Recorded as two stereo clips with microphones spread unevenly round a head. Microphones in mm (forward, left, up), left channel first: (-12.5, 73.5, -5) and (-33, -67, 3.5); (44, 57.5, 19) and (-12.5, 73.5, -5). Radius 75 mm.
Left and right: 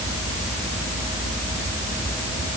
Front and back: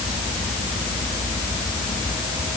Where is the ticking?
No ticking in this recording.